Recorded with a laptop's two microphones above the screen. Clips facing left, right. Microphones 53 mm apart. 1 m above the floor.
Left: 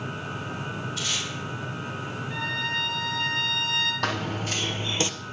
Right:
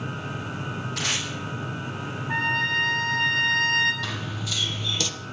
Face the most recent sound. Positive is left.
turn(degrees=25)  # may be behind; listen again after turning